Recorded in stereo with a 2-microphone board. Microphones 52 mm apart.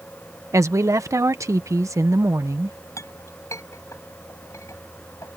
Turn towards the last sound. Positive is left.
turn(degrees=80)